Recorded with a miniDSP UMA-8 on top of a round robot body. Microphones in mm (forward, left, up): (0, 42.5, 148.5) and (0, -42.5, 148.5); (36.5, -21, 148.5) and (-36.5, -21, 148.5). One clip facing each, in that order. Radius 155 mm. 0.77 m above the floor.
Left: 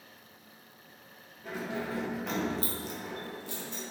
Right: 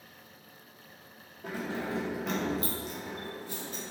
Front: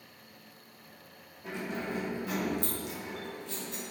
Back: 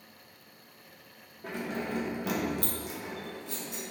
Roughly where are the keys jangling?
Behind right.